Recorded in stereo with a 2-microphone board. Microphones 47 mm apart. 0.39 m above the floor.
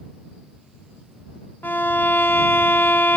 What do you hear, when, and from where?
1.6 s a violin: 50° left (ahead or behind)